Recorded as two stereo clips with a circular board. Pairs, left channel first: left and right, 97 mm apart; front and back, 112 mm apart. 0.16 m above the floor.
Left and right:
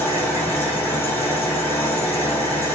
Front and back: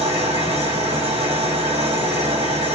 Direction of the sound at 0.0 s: 160° left.